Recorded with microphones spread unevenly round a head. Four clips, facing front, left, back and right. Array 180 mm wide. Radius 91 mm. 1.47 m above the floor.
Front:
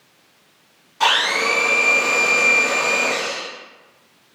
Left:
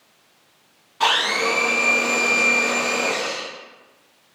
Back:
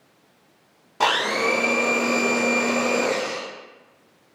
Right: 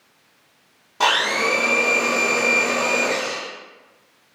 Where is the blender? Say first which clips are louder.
Right 1 dB, front 2 dB; 145° right, 0.6 m.